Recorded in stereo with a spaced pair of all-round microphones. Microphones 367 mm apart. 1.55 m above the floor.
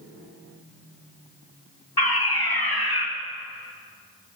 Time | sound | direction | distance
2.0 | a fire alarm | 75° left (ahead or behind) | 3.5 m